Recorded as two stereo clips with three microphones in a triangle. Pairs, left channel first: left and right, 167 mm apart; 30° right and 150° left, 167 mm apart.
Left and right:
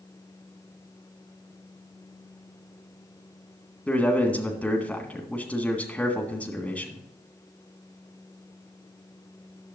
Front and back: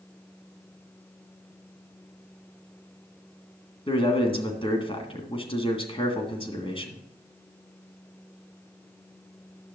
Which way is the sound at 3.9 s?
10° left.